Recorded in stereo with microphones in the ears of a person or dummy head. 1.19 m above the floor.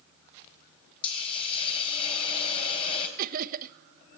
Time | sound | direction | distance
1.0 | a hiss | 35° left (ahead or behind) | 3.5 m
3.2 | laughter | 50° right (ahead or behind) | 1.0 m